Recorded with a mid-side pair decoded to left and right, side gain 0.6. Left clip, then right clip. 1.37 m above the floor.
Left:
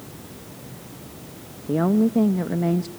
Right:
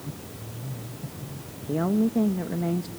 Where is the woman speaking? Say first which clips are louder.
Left 4 dB; 25° left, 1.3 m.